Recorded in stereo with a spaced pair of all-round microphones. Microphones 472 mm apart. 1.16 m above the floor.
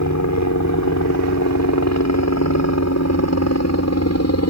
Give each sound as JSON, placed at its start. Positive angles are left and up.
{"t": 0.0, "sound": "a helicopter", "side_deg": 35}